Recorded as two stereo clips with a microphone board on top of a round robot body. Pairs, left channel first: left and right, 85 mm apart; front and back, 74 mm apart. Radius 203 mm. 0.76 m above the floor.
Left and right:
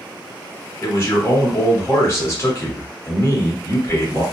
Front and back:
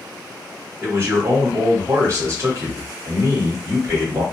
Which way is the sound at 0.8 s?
140° left.